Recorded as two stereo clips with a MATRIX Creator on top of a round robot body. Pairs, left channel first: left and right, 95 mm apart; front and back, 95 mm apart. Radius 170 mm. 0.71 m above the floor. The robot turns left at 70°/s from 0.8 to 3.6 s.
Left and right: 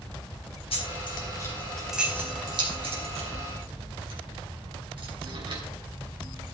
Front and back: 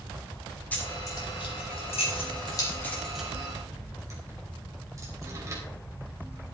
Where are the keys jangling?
75° left, 3.5 m; by 5.6 s 120° right, 3.5 m.